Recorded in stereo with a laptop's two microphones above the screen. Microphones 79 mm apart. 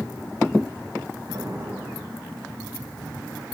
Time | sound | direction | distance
1.3 | an explosion | 50° right (ahead or behind) | 3 m